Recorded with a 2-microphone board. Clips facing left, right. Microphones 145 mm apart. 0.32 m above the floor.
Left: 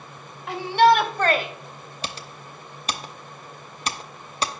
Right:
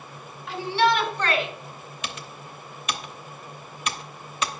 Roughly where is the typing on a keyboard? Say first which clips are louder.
Left 2 dB; left.